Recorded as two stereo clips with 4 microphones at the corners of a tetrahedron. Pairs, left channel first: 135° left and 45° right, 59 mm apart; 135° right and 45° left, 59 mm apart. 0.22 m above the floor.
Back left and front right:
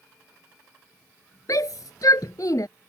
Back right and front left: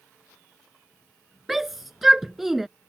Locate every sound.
1.5 s a shout: 130° left